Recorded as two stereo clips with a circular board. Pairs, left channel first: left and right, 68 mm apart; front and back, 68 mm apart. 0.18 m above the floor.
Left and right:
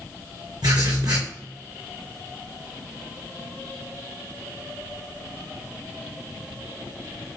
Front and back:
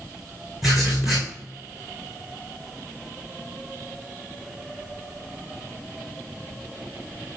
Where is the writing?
90° right, 3.5 m.